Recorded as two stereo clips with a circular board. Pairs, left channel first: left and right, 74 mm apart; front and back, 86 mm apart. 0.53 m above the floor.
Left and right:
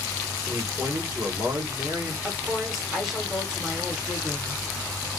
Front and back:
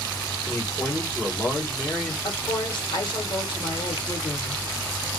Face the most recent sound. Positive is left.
turn(degrees=-5)